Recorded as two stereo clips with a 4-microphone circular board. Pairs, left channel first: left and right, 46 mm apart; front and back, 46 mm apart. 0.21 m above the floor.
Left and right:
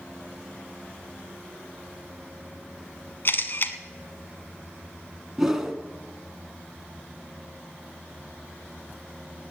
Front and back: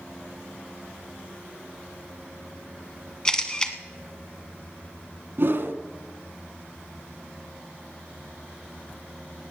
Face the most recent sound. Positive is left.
turn(degrees=-170)